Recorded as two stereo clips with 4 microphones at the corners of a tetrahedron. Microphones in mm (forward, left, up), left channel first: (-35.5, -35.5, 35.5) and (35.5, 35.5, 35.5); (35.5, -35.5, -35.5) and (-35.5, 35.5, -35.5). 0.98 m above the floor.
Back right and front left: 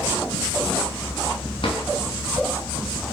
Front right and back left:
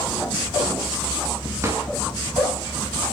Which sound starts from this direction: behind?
A drawer, at 1.6 s.